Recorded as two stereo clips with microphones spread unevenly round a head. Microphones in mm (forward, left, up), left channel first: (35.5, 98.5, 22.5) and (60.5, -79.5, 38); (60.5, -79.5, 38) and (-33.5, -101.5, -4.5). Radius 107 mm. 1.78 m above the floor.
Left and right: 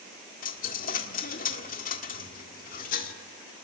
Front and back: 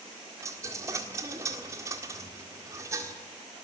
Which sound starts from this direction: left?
A dropped coin, at 0.4 s.